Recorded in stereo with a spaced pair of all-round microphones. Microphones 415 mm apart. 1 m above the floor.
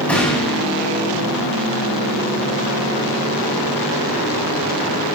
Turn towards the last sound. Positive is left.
turn(degrees=5)  # may be behind; listen again after turning